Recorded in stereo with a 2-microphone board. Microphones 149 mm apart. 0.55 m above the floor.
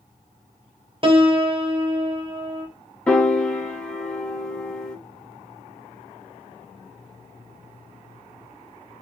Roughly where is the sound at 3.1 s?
Centre.